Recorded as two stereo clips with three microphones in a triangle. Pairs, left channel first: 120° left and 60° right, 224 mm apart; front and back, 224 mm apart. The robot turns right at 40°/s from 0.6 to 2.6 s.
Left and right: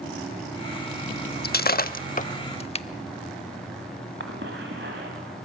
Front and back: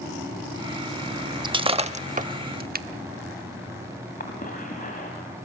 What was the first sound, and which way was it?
Breaking glass, 120° left.